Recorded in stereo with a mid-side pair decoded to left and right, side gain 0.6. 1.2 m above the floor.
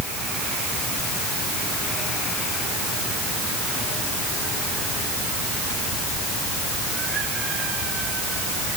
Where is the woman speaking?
No woman speaking in this recording.